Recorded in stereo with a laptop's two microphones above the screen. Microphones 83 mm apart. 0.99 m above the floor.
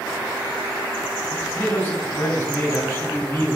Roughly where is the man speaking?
Left.